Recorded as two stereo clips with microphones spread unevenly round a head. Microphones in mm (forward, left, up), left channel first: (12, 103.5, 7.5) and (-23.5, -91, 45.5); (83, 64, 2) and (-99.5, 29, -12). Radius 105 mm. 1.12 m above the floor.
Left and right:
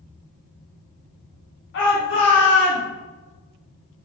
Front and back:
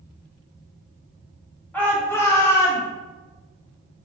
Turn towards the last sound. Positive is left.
turn(degrees=85)